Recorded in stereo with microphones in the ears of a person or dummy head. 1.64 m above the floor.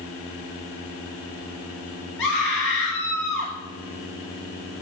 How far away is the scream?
About 2.5 m.